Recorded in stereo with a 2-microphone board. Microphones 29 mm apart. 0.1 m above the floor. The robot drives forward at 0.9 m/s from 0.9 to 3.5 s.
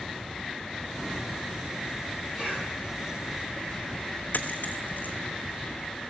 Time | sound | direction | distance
2.3 | a cough | 15° right (ahead or behind) | 8 m
4.3 | a dropped coin | 80° left | 1.1 m